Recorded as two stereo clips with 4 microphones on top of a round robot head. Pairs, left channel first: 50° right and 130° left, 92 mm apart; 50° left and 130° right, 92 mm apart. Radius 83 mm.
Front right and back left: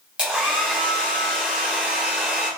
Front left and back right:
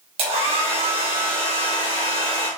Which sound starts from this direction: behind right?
A hair dryer, at 0.2 s.